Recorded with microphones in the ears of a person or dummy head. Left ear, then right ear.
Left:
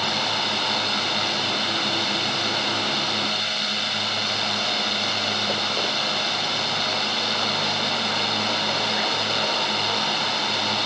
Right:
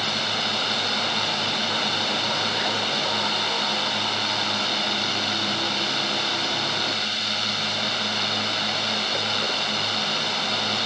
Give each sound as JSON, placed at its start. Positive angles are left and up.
{"t": 0.0, "sound": "a drone", "side_deg": 0}